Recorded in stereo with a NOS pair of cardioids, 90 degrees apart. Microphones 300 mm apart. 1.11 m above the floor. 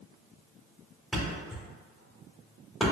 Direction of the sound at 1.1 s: Straight ahead.